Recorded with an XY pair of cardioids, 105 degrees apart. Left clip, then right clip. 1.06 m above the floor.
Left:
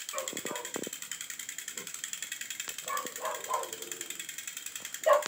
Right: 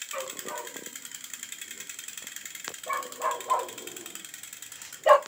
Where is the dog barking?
25° right, 5.5 m; by 5.2 s 50° right, 2 m.